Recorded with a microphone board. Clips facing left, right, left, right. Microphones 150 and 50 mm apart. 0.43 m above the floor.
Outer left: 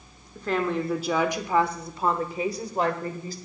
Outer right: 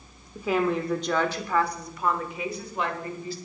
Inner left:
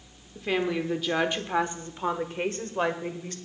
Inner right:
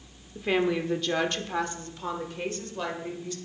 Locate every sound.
0.3 s a woman speaking: 10° right (ahead or behind), 1.1 m; by 3.4 s 45° left (ahead or behind), 1.9 m